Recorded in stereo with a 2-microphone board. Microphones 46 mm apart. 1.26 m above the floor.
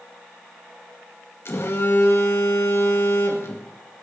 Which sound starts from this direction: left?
A phone buzzing, at 1.4 s.